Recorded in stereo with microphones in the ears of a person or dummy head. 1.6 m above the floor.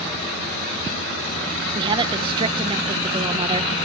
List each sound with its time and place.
1.8 s a woman speaking: 25° right (ahead or behind), 1.2 m